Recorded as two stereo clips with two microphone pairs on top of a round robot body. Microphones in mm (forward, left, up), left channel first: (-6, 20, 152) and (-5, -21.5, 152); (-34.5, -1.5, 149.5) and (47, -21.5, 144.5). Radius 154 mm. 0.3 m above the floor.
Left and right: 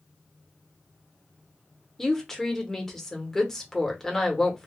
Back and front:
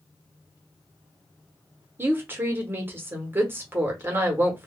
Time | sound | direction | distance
2.0 | a woman speaking | 15° left | 1.0 m